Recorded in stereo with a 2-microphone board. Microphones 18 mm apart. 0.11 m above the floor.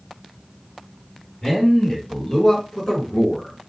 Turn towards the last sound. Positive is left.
turn(degrees=30)  # may be behind; listen again after turning